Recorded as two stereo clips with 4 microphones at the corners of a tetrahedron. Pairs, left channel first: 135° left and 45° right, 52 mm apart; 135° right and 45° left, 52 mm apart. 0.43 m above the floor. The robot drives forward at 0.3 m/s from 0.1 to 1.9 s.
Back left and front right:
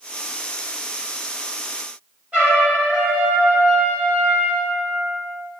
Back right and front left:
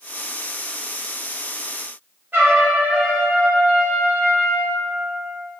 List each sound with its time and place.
2.3 s a trumpet: 10° left, 1.6 m